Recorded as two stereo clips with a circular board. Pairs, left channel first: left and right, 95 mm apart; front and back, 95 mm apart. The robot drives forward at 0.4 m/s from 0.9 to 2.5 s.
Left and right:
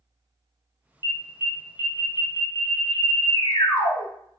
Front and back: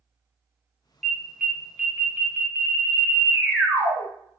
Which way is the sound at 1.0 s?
85° left.